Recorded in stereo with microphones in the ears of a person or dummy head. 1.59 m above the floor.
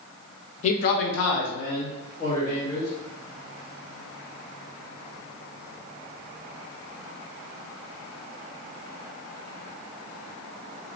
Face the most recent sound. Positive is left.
turn(degrees=45)  # may be behind; listen again after turning